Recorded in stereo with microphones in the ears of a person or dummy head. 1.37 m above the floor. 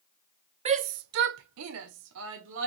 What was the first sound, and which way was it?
A shout, 35° right (ahead or behind).